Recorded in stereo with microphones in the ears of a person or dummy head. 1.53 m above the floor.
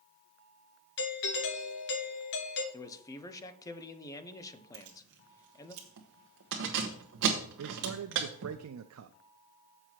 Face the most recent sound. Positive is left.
turn(degrees=-85)